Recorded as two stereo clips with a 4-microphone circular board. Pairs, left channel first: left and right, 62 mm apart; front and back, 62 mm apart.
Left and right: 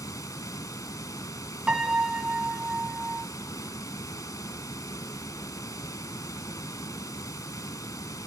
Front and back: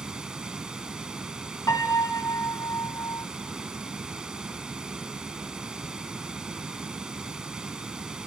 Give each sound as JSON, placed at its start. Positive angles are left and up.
{"t": 0.0, "sound": "running water", "azimuth_deg": 100, "distance_m": 1.0}
{"t": 1.7, "sound": "a piano", "azimuth_deg": -15, "distance_m": 2.0}